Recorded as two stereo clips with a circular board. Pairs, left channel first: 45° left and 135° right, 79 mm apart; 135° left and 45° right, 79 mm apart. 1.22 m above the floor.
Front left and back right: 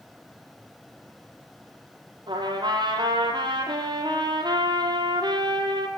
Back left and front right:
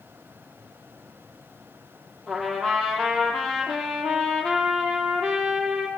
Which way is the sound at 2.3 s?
140° right.